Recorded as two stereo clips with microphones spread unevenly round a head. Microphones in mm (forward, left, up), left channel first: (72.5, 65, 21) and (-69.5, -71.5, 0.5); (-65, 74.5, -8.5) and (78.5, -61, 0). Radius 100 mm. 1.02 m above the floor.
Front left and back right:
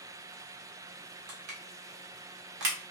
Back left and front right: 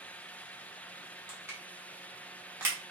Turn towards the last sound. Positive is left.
turn(degrees=-120)